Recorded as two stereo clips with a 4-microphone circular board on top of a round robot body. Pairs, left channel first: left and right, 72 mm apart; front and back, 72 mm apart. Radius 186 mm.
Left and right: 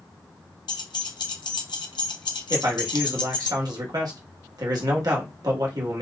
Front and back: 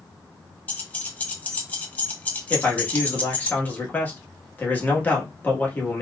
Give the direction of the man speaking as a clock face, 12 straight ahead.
2 o'clock.